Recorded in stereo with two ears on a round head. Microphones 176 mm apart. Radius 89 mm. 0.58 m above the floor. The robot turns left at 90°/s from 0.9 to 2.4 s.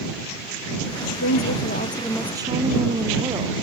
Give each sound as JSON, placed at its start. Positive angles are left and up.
{"t": 1.1, "sound": "a woman speaking", "azimuth_deg": 95}